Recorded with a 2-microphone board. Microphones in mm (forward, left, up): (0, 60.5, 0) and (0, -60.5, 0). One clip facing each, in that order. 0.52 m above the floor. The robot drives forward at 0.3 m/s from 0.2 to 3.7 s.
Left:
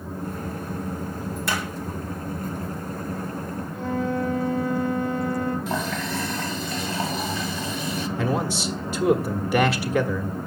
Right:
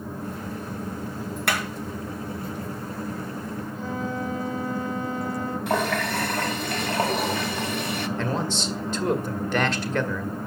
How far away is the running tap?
About 0.9 m.